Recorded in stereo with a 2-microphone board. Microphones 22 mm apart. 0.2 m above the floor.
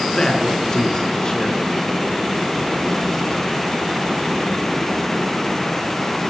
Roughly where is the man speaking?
Left.